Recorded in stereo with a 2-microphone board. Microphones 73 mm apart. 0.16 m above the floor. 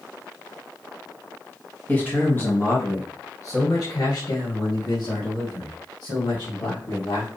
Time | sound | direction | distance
1.9 | a man speaking | 20° left (ahead or behind) | 2.0 m